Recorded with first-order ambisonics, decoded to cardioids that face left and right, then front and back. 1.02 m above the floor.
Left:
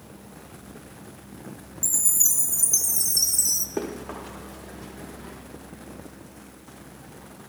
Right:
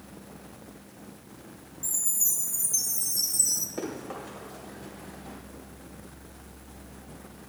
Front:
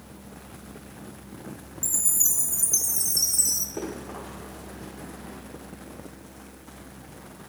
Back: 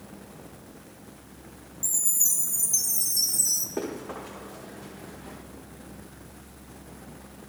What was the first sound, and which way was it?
A chime, 70° left.